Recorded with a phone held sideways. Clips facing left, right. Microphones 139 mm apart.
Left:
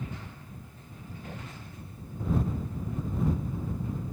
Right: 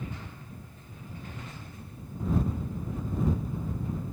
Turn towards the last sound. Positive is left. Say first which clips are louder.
# left 3 dB
turn(degrees=85)